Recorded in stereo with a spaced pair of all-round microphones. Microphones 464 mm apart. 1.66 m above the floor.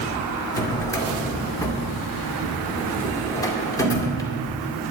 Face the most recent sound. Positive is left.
turn(degrees=10)  # may be behind; listen again after turning